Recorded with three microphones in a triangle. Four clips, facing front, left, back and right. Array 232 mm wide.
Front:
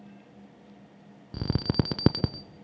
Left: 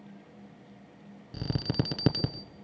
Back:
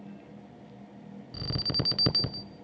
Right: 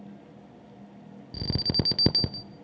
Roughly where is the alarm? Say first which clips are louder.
Right 1 dB, front 7 dB; ahead.